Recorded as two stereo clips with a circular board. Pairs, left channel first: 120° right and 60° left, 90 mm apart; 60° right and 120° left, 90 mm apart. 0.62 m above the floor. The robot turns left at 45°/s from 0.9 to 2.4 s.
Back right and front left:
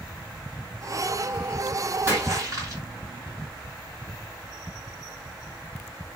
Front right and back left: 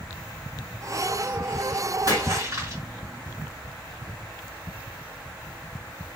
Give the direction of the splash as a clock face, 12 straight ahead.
9 o'clock.